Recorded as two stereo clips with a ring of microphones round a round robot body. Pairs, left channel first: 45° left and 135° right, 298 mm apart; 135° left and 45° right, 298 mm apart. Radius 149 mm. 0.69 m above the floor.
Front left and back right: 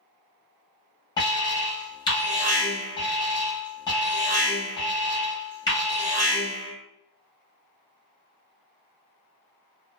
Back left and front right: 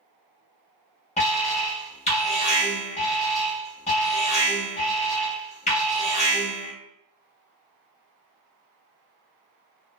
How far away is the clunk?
No clunk in this recording.